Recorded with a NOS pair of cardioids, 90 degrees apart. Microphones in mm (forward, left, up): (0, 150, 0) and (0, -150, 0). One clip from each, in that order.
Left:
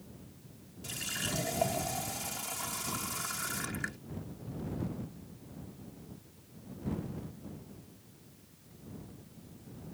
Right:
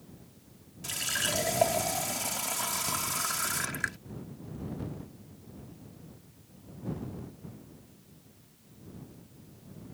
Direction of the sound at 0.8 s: 45° right.